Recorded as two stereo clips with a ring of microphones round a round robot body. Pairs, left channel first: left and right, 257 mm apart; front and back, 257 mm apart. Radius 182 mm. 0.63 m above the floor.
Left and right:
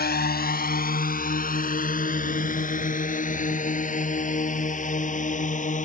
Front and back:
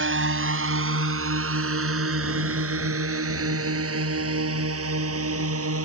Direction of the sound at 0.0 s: 140° left.